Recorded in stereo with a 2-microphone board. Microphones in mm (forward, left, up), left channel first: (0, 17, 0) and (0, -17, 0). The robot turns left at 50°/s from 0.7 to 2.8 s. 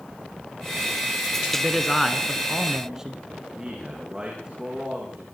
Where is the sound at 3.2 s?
20° right (ahead or behind), 7 m.